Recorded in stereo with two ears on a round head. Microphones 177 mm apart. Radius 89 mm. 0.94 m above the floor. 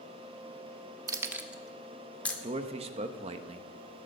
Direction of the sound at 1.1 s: 20° right (ahead or behind).